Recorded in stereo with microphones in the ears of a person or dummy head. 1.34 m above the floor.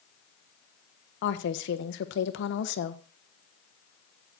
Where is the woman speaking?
60° left (ahead or behind), 1.1 m.